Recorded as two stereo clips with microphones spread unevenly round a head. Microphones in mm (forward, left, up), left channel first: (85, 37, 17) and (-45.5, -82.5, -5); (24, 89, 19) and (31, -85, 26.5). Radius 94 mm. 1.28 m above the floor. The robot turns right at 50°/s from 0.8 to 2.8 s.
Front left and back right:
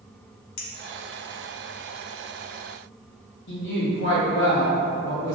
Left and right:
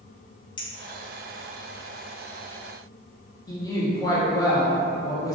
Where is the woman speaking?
25° left, 1.2 m.